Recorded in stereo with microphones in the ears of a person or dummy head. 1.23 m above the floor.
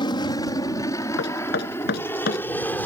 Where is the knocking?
60° left (ahead or behind).